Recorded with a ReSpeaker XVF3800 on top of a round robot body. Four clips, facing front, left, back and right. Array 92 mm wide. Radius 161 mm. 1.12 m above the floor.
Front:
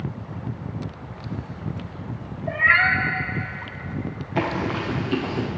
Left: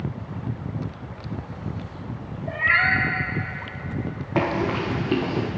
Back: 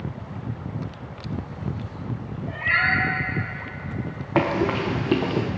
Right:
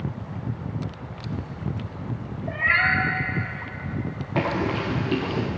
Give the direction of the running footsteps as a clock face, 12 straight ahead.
6 o'clock.